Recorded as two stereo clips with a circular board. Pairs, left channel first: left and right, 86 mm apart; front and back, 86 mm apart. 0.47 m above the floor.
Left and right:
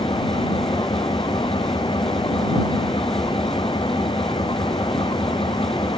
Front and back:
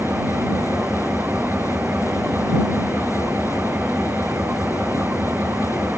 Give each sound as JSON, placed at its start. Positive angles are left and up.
{"t": 0.0, "sound": "an engine running", "azimuth_deg": 110}